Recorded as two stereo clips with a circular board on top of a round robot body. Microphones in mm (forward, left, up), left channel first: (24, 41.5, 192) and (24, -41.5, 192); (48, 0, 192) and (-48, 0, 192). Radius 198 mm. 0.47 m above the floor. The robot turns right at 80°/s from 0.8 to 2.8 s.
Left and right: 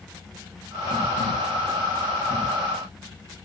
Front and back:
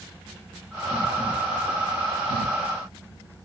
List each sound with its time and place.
Only background noise.